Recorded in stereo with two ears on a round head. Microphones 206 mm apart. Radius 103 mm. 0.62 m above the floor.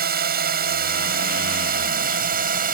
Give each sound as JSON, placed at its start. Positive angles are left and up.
{"t": 0.0, "sound": "a drone", "side_deg": -40}